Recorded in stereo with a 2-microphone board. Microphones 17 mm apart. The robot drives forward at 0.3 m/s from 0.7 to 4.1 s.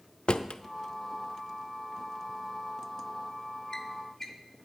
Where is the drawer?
80° left, 0.6 m; by 4.3 s 25° left (ahead or behind), 1.3 m.